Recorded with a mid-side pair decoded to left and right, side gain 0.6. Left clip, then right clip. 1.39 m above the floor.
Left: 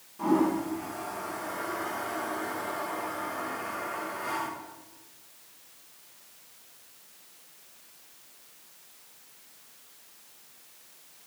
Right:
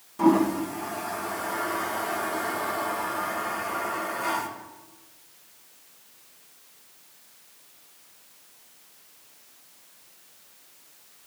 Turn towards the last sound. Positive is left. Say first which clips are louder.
# right 4 dB
turn(degrees=-50)